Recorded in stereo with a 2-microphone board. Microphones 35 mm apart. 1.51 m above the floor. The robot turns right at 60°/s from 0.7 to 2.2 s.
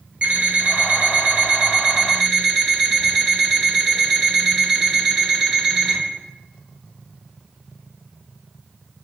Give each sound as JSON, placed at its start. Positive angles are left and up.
{"t": 0.2, "sound": "an alarm clock", "azimuth_deg": -95, "distance_m": 1.0}